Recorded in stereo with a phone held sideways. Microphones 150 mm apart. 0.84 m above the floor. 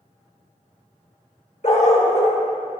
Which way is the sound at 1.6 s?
50° left (ahead or behind).